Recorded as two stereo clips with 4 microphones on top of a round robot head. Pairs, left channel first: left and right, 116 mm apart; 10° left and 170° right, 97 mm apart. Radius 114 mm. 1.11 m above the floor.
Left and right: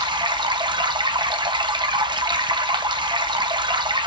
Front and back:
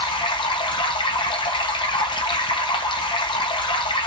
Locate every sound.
0.0 s running water: 35° right, 0.9 m